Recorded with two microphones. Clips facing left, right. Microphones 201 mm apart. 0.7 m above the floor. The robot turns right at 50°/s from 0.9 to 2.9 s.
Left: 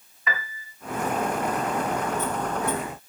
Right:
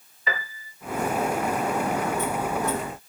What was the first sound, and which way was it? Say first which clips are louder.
A piano: right 1 dB; 35° right (ahead or behind).